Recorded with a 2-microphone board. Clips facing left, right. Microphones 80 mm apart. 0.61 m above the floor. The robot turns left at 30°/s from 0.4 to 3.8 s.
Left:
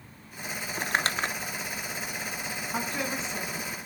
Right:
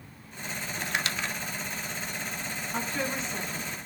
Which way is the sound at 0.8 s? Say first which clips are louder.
Left 4 dB; 35° left (ahead or behind).